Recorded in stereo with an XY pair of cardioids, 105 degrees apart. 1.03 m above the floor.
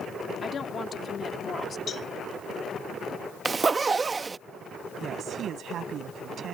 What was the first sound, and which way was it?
A woman speaking, 45° left.